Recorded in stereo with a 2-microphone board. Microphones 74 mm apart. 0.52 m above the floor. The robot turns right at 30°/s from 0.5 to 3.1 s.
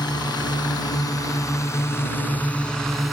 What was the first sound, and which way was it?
A drone, 70° left (ahead or behind).